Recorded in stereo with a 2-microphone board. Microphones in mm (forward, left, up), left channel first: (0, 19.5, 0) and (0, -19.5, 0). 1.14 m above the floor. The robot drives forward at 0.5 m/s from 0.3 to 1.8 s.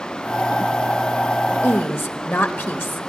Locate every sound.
1.6 s a woman speaking: 65° left (ahead or behind), 1.4 m